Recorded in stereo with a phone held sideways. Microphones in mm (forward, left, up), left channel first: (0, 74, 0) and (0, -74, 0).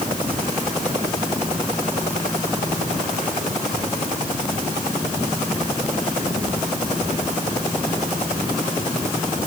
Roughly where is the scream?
No scream in this recording.